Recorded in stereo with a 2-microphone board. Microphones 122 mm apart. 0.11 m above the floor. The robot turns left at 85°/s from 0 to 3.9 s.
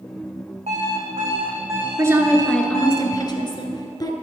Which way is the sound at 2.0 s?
135° right.